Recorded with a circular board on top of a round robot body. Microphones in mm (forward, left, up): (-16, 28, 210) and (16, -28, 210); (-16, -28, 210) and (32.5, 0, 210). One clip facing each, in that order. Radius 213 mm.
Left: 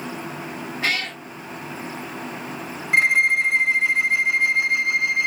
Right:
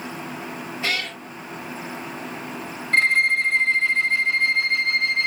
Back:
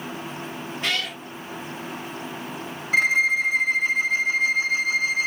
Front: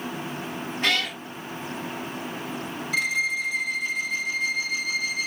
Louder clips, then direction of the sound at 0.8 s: Left 2 dB, front 2 dB; 80° left.